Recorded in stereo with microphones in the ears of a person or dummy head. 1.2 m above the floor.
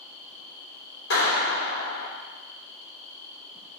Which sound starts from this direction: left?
A clap, at 1.1 s.